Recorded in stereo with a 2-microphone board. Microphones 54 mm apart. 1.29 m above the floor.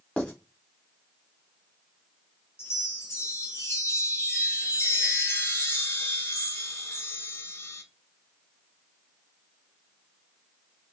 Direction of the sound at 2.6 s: 55° left (ahead or behind).